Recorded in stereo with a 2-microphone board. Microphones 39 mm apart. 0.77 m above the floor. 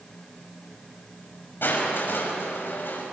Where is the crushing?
70° left (ahead or behind), 5.5 m.